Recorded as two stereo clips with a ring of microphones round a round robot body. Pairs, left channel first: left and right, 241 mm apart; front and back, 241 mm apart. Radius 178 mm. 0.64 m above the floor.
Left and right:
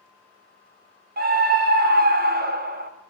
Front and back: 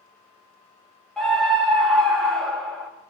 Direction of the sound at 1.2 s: 85° right.